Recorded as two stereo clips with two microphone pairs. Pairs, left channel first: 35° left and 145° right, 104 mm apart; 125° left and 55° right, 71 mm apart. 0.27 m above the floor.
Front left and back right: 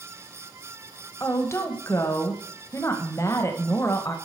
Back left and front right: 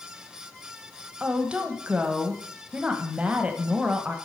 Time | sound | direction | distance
1.2 | a woman speaking | 5° left | 1.1 m